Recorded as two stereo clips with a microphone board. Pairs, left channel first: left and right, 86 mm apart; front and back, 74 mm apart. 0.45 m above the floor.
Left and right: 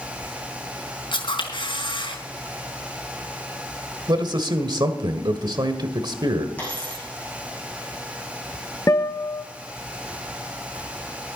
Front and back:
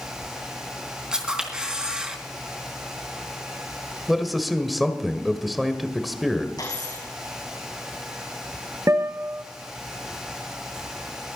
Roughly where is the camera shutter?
Left.